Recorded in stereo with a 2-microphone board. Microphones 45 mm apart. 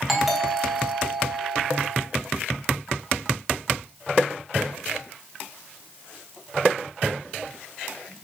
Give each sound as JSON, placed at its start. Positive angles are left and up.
{"t": 0.1, "sound": "a doorbell", "side_deg": -5, "distance_m": 1.3}